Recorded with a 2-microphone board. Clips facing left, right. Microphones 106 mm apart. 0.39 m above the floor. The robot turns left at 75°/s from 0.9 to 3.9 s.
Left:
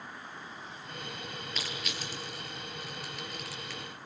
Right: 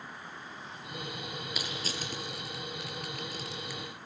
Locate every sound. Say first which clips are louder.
1.6 s crushing: right 1 dB; 10° right (ahead or behind), 6 m; by 3.8 s 5° right (ahead or behind), 6 m